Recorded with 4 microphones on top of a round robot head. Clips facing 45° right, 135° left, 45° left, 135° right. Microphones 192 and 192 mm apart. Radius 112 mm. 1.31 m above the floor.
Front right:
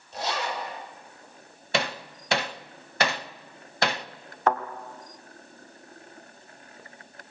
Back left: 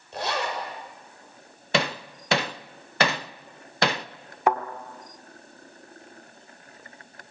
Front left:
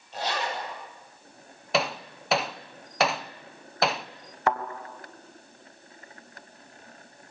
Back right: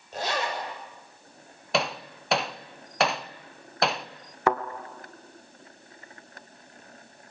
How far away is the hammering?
About 0.7 m.